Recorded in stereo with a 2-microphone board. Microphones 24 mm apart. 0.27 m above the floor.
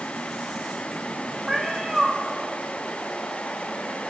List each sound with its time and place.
1.5 s a cat meowing: 10° right (ahead or behind), 8 m